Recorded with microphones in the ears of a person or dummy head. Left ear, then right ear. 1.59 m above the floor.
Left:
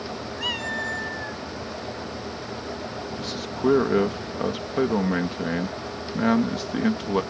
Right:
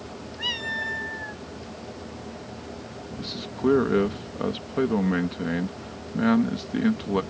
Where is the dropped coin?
No dropped coin in this recording.